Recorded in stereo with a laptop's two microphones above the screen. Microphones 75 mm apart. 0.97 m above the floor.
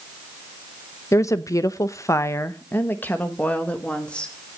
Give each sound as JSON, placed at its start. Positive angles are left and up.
{"t": 1.1, "sound": "a woman speaking", "side_deg": 40, "distance_m": 0.9}